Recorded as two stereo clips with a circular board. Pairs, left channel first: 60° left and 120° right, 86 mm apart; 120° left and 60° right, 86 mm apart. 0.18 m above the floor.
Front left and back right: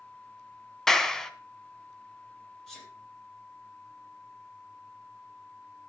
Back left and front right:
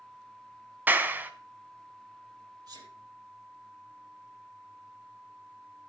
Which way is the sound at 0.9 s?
20° right.